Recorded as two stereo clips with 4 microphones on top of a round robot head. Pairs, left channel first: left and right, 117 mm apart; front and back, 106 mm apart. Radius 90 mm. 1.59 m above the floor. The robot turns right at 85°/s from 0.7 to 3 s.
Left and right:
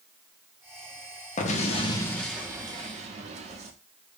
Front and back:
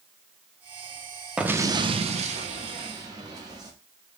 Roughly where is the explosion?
Left.